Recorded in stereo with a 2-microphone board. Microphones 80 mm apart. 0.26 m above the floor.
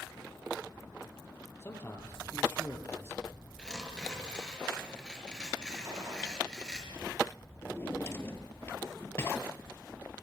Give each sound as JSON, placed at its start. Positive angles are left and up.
{"t": 1.6, "sound": "a man speaking", "side_deg": 30, "distance_m": 6.5}
{"t": 3.6, "sound": "tearing paper", "side_deg": 10, "distance_m": 5.5}
{"t": 5.8, "sound": "a gunshot", "side_deg": -35, "distance_m": 7.0}
{"t": 7.6, "sound": "a drawer", "side_deg": 30, "distance_m": 2.5}